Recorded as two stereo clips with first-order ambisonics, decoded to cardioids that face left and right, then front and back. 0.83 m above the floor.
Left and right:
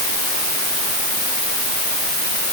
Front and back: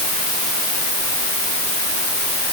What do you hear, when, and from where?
Only background noise.